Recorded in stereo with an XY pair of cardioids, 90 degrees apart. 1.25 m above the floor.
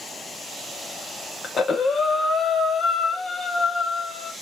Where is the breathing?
50° left, 1.3 m.